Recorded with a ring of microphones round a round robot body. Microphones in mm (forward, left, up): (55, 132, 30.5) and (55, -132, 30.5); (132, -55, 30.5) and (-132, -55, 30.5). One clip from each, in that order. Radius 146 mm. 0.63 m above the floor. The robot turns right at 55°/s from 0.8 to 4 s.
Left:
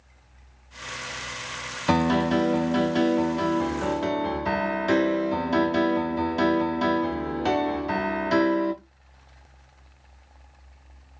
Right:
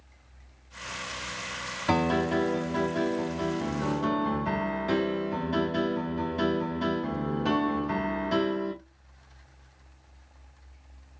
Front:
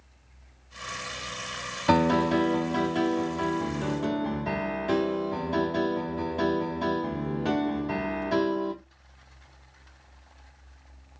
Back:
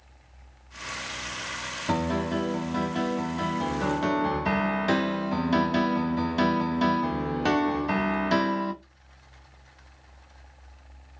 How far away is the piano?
About 0.8 m.